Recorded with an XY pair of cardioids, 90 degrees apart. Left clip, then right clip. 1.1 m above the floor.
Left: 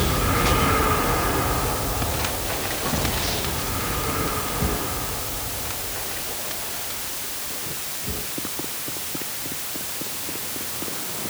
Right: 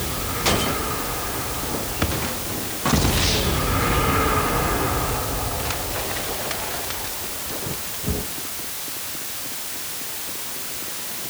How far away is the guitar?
No guitar in this recording.